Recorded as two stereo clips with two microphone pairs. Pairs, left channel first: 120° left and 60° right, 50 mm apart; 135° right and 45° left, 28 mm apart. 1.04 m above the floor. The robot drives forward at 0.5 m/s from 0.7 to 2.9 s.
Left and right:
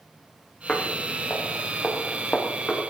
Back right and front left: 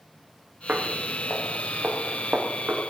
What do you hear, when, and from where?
0.7 s footsteps: 55° left, 5.5 m